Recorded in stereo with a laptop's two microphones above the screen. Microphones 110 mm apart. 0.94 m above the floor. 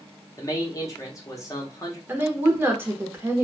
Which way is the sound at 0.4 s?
30° left (ahead or behind).